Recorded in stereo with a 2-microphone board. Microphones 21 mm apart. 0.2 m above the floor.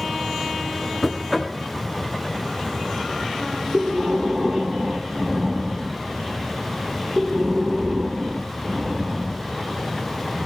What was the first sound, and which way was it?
Knocking, 10° left (ahead or behind).